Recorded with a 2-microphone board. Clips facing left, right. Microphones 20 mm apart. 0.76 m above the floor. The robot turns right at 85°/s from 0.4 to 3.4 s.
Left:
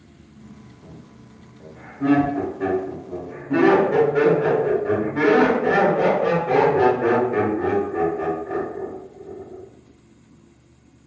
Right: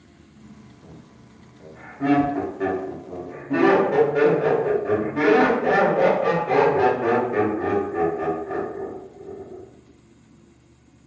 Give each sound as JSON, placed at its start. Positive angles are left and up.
{"t": 0.8, "sound": "laughter", "side_deg": 25, "distance_m": 1.8}